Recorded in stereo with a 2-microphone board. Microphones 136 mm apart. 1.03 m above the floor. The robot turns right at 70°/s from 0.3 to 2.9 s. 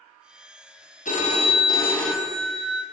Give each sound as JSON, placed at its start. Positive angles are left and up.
{"t": 1.1, "sound": "a phone ringing", "azimuth_deg": 105, "distance_m": 0.6}